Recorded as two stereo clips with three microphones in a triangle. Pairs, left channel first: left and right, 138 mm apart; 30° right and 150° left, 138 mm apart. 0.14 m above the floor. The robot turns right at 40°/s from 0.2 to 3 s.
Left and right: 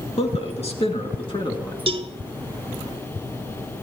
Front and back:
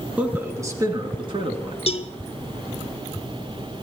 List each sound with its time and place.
0.2 s a man speaking: 75° left, 2.0 m; by 1.8 s 135° left, 2.0 m
1.9 s a cowbell: 60° right, 0.6 m; by 2.1 s 50° right, 0.6 m